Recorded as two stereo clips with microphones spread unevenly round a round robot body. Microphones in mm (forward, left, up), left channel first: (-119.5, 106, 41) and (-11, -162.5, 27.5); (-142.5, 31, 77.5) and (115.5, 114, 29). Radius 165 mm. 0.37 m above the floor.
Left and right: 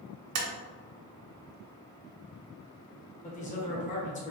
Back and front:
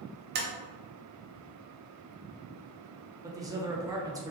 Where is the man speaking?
65° left, 1.0 m.